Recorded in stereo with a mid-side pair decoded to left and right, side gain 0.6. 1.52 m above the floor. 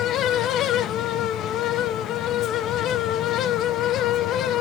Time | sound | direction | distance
0.0 | a fan | 60° left | 0.8 m